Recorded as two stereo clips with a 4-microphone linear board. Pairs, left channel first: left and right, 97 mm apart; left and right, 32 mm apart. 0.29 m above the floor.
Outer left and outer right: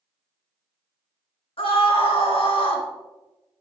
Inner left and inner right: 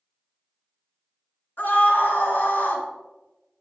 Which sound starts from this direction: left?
A scream, at 1.6 s.